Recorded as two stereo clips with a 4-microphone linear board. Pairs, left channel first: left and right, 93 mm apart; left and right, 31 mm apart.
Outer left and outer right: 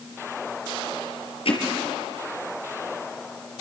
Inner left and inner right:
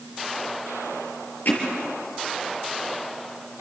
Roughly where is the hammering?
Left.